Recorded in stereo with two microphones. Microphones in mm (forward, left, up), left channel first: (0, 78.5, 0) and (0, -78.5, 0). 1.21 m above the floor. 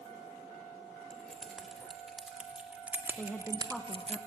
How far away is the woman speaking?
About 1.0 m.